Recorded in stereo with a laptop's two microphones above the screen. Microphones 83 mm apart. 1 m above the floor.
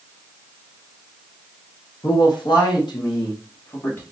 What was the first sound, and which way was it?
A man speaking, 55° left (ahead or behind).